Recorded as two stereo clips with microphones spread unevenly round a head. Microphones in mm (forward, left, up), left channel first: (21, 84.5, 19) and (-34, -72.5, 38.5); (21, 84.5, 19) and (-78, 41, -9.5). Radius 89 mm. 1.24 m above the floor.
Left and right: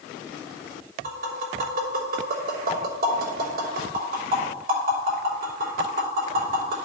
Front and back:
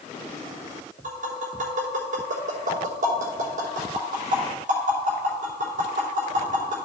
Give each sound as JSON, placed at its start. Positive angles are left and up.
{"t": 1.0, "sound": "tapping", "azimuth_deg": -150, "distance_m": 3.0}